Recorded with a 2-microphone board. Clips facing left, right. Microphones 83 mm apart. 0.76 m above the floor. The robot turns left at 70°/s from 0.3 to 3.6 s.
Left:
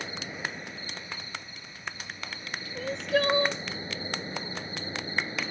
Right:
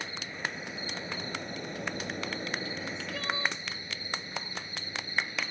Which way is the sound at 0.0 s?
15° left.